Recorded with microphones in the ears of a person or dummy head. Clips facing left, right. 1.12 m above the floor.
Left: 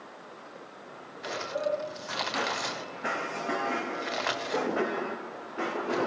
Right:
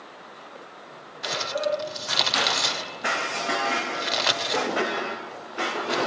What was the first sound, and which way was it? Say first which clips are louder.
Crumpling: right 4 dB; 50° right (ahead or behind).